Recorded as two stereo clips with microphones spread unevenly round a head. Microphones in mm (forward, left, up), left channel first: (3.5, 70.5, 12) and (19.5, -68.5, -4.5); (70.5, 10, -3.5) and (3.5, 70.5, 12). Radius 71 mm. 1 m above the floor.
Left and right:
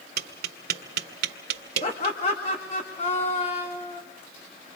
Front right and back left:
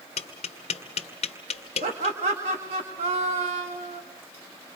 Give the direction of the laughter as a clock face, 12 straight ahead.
7 o'clock.